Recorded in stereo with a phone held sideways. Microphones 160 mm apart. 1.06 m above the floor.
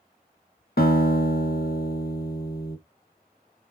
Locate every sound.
0.8 s a guitar: 75° left (ahead or behind), 1.1 m